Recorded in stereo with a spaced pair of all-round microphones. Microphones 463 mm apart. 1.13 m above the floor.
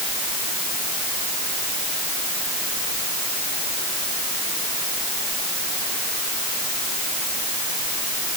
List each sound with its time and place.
Only background noise.